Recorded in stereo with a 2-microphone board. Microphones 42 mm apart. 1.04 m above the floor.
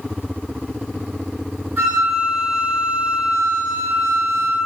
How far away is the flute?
About 1.7 m.